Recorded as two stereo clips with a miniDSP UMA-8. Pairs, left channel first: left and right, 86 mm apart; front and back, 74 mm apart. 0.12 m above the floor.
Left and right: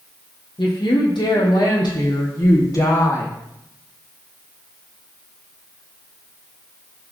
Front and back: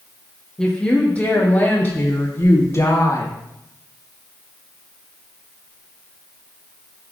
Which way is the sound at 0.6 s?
80° left.